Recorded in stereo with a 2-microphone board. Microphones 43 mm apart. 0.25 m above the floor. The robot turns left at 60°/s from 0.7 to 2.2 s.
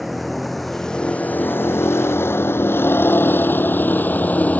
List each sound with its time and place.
0.0 s a vehicle: centre (ahead or behind); by 4.6 s 40° left (ahead or behind)